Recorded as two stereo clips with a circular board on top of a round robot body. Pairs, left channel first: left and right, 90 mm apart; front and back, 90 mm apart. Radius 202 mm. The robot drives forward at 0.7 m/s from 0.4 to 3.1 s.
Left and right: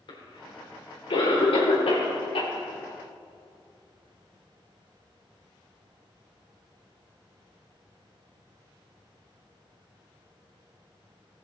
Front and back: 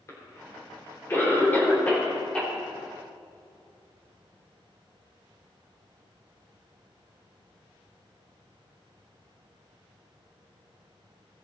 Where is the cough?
60° left, 4 m; by 2.5 s 80° left, 3.5 m.